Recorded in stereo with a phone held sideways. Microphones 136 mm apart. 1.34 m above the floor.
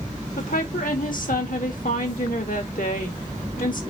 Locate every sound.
0.4 s a woman speaking: 80° left, 2 m